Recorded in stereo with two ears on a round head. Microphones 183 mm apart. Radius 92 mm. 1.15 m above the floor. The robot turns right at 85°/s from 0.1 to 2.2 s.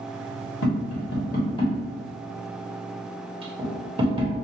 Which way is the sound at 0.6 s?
65° left (ahead or behind).